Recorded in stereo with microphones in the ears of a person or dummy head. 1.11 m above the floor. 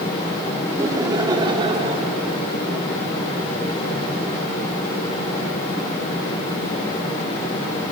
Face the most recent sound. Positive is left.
turn(degrees=-35)  # may be behind; listen again after turning